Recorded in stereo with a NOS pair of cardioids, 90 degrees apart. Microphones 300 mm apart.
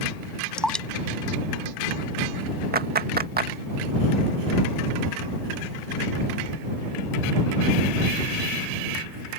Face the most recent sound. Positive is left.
turn(degrees=-30)